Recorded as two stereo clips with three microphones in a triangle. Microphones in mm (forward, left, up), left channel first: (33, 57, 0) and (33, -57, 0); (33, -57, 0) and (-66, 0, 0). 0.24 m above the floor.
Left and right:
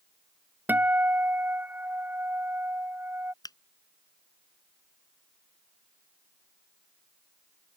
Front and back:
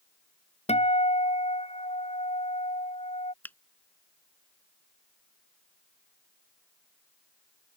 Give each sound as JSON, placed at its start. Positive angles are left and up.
{"t": 0.7, "sound": "a guitar", "azimuth_deg": -15}
{"t": 3.4, "sound": "a finger snap", "azimuth_deg": 45}